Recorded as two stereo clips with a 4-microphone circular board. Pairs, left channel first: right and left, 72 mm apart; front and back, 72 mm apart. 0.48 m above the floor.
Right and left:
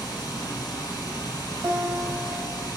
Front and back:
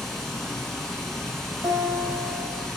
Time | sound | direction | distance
0.0 | running water | 85° right | 0.9 m
1.6 | a guitar | 155° left | 0.7 m